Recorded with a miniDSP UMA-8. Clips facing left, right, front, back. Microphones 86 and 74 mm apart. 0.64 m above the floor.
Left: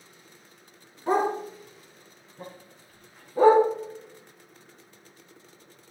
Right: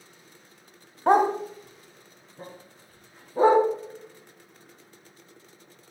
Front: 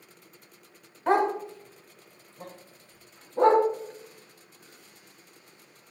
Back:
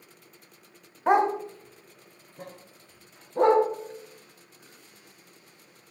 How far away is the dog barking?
About 1.1 m.